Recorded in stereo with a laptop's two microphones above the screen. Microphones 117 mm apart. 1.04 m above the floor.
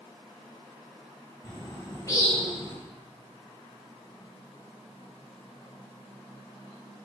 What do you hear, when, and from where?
1.4 s a bird: 30° left (ahead or behind), 1.5 m